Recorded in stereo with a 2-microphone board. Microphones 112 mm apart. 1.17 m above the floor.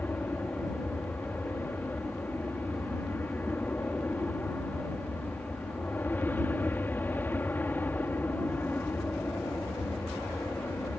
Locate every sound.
0.0 s an aircraft: 15° left (ahead or behind)